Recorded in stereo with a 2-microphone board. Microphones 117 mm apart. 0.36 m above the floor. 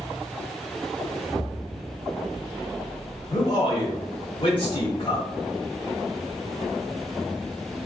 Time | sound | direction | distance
1.3 | an explosion | 25° left (ahead or behind) | 2.0 m
3.3 | a man speaking | 40° left (ahead or behind) | 1.0 m